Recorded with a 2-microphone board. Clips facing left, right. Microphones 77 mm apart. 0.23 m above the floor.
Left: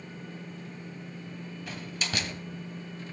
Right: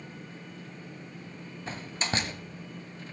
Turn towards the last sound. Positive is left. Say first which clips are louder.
# right 3 dB
turn(degrees=-35)  # may be behind; listen again after turning